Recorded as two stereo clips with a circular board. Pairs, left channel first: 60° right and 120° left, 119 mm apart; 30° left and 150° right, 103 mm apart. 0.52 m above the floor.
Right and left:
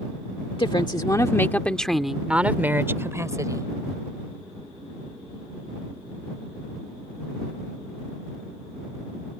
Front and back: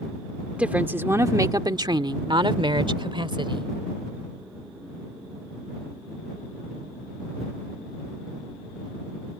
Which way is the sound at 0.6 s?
75° right.